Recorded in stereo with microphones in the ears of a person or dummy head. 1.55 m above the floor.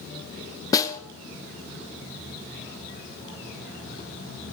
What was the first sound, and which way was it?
A snare drum, 25° left (ahead or behind).